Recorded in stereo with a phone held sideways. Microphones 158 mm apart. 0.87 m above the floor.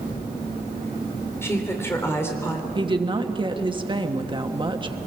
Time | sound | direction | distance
1.4 | a woman speaking | 15° left (ahead or behind) | 3.5 m
2.8 | a woman speaking | 30° right (ahead or behind) | 1.3 m